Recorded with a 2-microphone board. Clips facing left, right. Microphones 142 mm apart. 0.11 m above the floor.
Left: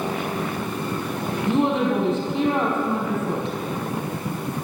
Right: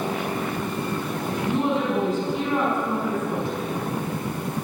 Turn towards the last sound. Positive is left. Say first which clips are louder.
# left 3 dB
turn(degrees=20)  # may be behind; listen again after turning